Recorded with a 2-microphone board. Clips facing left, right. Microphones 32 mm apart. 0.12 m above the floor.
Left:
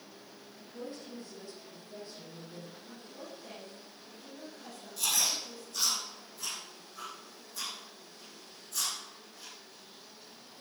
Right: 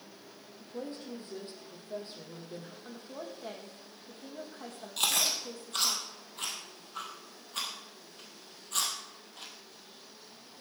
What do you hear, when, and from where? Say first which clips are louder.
0.6 s a woman speaking: right 3 dB; 55° right (ahead or behind), 4 m
2.9 s a woman speaking: right 4 dB; 75° right (ahead or behind), 4 m
5.0 s chewing: right 2 dB; 70° right (ahead or behind), 3 m